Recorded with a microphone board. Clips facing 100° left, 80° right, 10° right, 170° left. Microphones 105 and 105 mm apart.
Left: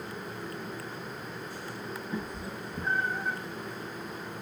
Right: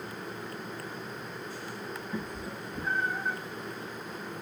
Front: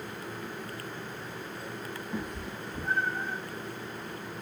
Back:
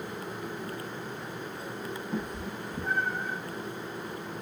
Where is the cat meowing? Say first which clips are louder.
Left 1 dB, back 2 dB; 155° left, 3.5 m; by 3.4 s 160° left, 5 m.